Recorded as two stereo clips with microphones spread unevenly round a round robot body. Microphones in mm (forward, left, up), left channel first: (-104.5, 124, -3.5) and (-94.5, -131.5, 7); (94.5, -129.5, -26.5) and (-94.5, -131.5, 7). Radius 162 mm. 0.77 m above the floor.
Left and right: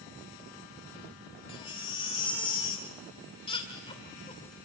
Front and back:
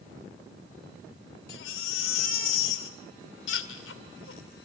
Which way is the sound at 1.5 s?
20° left.